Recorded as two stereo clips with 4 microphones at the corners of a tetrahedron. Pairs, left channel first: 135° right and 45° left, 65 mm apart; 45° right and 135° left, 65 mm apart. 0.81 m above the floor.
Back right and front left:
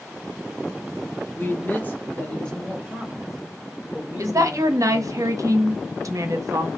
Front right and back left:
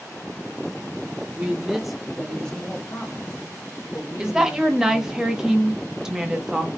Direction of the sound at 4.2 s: 55° left.